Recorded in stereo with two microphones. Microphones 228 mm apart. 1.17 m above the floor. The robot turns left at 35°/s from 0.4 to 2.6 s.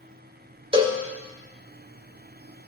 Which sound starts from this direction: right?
A cowbell, at 0.7 s.